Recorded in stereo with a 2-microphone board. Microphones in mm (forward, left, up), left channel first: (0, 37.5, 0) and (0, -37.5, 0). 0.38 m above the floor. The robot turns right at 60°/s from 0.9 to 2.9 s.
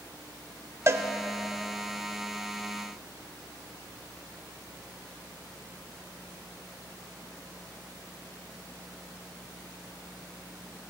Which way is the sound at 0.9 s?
35° right (ahead or behind).